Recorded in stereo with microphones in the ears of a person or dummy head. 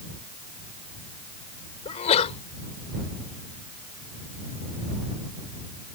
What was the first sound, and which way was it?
A sneeze, 40° left (ahead or behind).